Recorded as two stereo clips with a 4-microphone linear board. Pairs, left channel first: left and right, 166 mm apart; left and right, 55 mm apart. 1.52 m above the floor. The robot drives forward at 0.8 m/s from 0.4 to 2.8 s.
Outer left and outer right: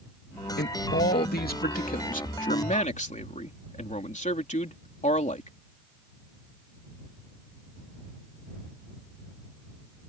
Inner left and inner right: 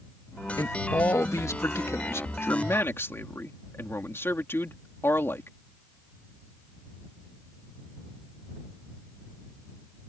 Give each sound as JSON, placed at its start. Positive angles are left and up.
{"t": 0.6, "sound": "a man speaking", "side_deg": 75}